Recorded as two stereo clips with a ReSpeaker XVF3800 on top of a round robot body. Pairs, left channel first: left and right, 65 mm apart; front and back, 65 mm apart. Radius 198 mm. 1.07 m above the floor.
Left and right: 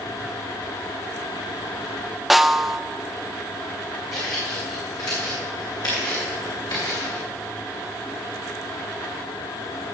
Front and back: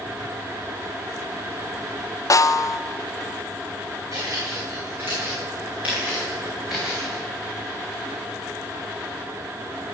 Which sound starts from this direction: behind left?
Footsteps, at 4.1 s.